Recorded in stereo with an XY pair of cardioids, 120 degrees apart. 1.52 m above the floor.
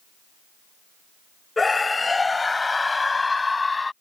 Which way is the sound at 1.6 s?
20° left.